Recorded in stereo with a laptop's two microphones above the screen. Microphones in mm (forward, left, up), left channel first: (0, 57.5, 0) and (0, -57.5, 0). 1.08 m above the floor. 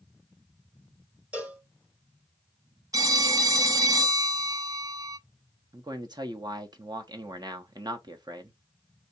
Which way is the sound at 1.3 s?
10° right (ahead or behind).